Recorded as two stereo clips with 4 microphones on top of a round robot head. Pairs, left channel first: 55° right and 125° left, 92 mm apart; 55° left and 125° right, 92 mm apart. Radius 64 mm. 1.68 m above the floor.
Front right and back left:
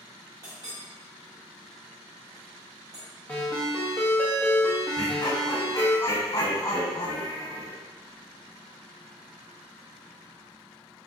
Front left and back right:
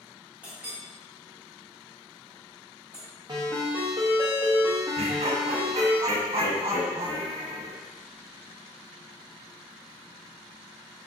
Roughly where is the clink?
Behind.